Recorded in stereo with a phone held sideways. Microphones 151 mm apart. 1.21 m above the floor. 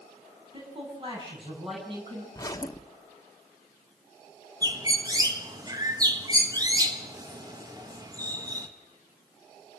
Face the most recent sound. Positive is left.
turn(degrees=-25)  # may be behind; listen again after turning